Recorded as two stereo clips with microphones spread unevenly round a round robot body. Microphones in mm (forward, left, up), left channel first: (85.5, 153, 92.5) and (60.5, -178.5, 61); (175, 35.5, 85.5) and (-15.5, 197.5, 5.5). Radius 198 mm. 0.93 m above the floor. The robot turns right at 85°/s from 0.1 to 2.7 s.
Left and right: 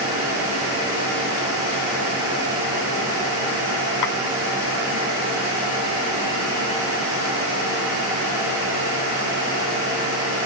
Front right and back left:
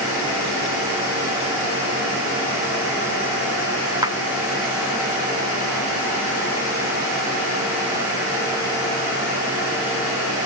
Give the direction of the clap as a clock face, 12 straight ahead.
10 o'clock.